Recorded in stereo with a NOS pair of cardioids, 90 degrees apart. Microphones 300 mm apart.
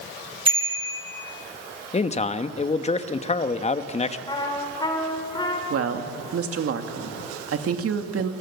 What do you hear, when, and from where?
0.5 s a bicycle bell: 20° right, 9 m
1.9 s a man speaking: 20° left, 1.3 m
4.3 s a trumpet: 15° left, 4.5 m
5.7 s a woman speaking: 55° right, 2.5 m